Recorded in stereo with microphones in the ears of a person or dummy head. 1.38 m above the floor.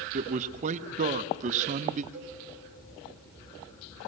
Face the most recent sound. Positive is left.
turn(degrees=-10)  # may be behind; listen again after turning